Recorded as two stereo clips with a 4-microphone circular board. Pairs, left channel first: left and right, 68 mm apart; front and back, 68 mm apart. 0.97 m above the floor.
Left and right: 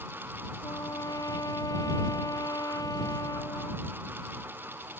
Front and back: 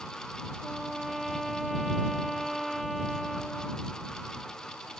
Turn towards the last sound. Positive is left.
turn(degrees=90)